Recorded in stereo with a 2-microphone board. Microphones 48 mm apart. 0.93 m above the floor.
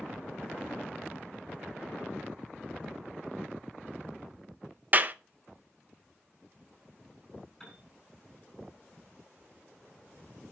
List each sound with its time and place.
4.9 s a clap: 35° right (ahead or behind), 0.6 m
7.6 s a piano: 10° left (ahead or behind), 6 m